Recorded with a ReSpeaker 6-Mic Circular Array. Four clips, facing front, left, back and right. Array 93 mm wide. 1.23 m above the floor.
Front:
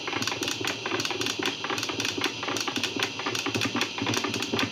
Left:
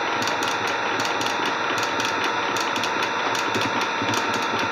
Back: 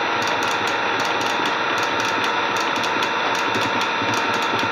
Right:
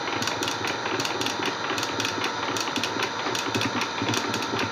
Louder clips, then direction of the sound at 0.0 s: Left 5 dB, back 11 dB; 160° left.